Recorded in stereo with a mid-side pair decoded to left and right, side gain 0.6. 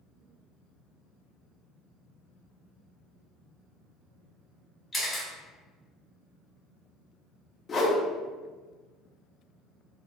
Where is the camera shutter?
20° left, 1.1 m.